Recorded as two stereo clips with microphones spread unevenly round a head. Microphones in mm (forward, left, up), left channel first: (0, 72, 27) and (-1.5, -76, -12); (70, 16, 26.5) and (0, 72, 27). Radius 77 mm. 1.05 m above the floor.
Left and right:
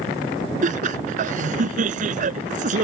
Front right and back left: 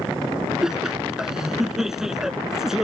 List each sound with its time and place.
0.6 s laughter: 130° right